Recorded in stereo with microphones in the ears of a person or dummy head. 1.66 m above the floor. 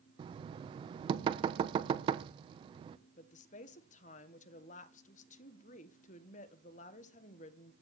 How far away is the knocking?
About 0.9 m.